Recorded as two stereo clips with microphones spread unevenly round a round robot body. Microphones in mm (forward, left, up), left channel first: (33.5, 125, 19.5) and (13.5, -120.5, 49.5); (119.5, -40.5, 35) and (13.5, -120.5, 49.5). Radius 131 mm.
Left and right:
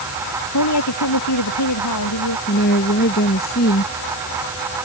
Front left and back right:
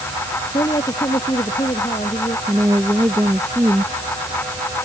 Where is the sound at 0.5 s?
105° left.